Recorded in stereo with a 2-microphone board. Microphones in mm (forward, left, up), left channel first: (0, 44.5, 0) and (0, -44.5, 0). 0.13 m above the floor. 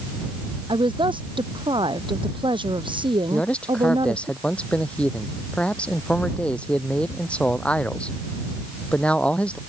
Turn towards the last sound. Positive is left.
turn(degrees=15)  # may be behind; listen again after turning